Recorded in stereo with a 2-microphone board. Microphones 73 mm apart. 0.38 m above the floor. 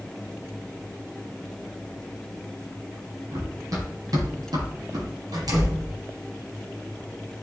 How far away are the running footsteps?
About 7.5 m.